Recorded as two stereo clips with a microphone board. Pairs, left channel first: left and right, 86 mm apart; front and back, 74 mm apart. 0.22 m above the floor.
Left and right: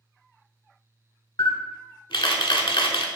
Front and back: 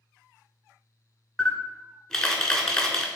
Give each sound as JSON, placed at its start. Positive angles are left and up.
{"t": 1.4, "sound": "a camera shutter", "azimuth_deg": 80, "distance_m": 0.5}